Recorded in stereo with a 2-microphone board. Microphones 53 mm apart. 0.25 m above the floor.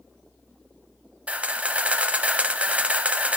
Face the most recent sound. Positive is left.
turn(degrees=-25)  # may be behind; listen again after turning